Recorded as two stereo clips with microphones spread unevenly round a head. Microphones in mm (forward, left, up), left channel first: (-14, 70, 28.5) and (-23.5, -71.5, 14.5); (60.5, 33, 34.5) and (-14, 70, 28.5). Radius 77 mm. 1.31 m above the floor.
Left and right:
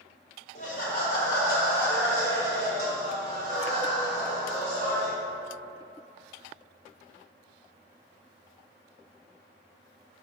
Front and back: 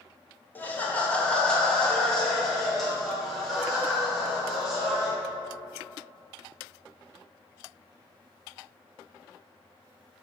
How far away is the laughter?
About 1.3 m.